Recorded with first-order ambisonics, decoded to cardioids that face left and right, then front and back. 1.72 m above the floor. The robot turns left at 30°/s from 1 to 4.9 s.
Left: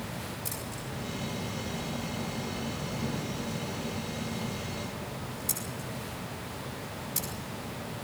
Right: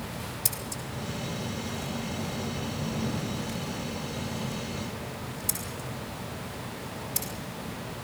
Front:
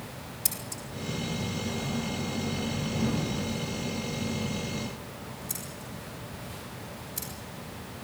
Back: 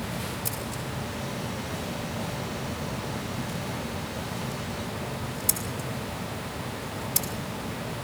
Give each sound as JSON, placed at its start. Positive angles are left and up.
{"t": 0.5, "sound": "scissors", "azimuth_deg": -50, "distance_m": 5.5}